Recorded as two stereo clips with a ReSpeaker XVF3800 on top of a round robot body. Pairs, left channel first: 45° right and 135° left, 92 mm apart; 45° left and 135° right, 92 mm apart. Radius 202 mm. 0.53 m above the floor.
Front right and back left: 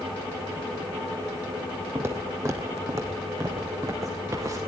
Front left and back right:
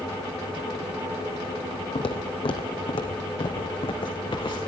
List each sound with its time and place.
1.9 s footsteps: 70° left, 1.0 m; by 4.6 s 80° left, 2.5 m